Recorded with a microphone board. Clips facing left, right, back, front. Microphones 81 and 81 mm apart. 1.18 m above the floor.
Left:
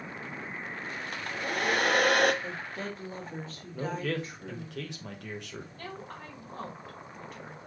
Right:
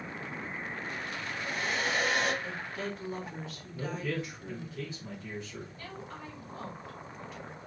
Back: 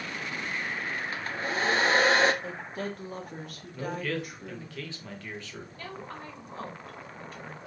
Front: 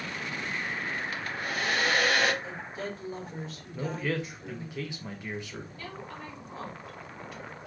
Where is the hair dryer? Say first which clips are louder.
Left 6 dB, back 2 dB; 120° left, 0.5 m.